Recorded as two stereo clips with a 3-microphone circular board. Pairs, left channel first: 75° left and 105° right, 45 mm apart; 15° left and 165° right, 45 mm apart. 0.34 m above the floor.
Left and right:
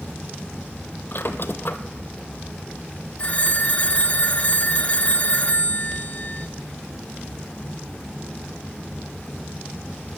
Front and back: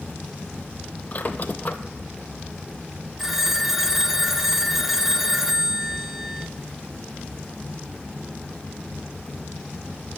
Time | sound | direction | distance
1.1 | a squeak | 55° left | 0.6 m
3.2 | a phone ringing | 115° left | 0.6 m